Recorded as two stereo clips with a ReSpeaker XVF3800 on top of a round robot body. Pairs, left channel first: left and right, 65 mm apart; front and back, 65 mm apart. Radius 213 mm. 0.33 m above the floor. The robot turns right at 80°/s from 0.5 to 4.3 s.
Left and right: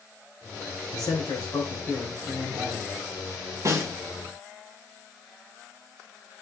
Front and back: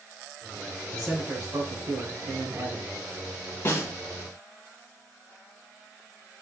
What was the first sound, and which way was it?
A man speaking, 85° left.